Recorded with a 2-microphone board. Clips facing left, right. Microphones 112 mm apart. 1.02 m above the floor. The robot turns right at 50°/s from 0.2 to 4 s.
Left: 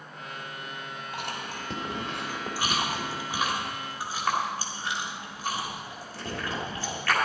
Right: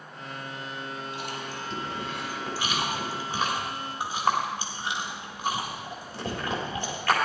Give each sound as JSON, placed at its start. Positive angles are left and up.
{"t": 1.1, "sound": "chewing", "side_deg": 55, "distance_m": 3.0}